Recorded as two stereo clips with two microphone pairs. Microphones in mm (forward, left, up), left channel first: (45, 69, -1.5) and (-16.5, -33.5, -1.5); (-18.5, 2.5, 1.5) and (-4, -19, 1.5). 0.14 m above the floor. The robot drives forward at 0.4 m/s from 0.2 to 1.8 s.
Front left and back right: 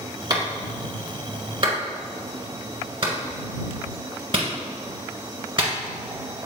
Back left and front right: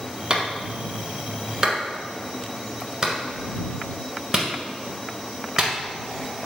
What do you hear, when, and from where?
0.3 s a clap: 85° right, 1.4 m; by 5.7 s 120° right, 1.5 m